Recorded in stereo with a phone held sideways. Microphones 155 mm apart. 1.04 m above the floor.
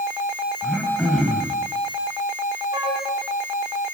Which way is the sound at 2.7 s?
30° right (ahead or behind).